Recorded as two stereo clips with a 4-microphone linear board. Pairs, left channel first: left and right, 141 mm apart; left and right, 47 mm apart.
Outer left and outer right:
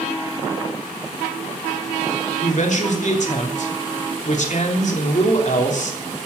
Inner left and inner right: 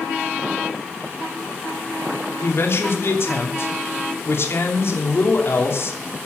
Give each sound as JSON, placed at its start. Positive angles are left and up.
{"t": 2.4, "sound": "a man speaking", "side_deg": 60, "distance_m": 3.0}